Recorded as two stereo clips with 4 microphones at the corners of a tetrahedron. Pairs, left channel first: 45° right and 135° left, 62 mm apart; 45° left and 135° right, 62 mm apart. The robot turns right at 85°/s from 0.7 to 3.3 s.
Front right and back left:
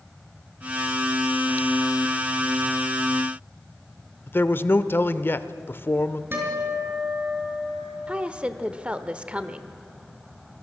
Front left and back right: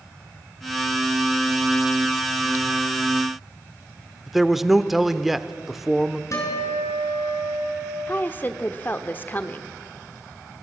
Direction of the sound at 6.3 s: 80° left.